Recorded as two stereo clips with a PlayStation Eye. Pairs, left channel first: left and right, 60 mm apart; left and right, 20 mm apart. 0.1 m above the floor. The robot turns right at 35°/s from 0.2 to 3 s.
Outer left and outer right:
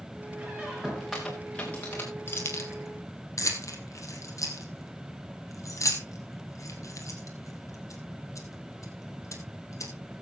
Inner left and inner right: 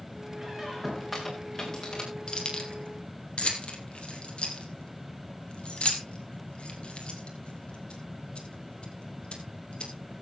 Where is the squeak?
25° right, 3 m; by 2.1 s 35° left, 3 m.